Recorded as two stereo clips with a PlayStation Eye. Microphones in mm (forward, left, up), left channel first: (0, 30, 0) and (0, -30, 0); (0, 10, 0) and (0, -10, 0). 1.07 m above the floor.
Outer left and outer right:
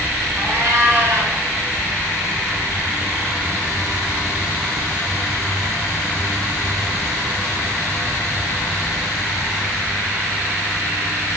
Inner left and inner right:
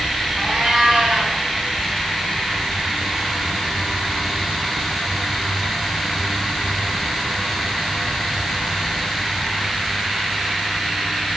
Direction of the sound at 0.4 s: 45° right (ahead or behind).